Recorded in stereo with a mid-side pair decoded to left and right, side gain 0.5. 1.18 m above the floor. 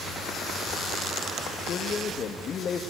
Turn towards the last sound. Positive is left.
turn(degrees=45)